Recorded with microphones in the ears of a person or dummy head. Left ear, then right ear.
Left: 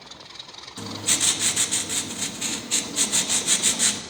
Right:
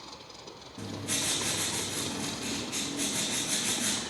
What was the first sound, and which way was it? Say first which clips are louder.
Writing: left 8 dB; 50° left (ahead or behind).